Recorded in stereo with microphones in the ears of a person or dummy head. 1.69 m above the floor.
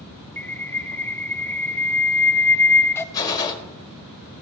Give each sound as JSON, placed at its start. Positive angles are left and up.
{"t": 0.4, "sound": "a bird", "side_deg": 10, "distance_m": 0.7}
{"t": 3.1, "sound": "a gunshot", "side_deg": 20, "distance_m": 1.7}